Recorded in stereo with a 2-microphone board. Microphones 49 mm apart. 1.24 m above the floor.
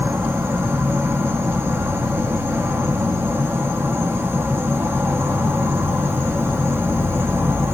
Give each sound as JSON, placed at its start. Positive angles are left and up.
{"t": 0.0, "sound": "an insect", "side_deg": -55, "distance_m": 1.0}